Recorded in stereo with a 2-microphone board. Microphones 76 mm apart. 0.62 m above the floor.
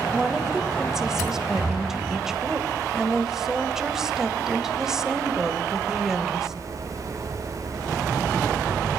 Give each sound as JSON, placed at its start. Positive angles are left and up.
{"t": 0.1, "sound": "a woman speaking", "side_deg": -5, "distance_m": 2.5}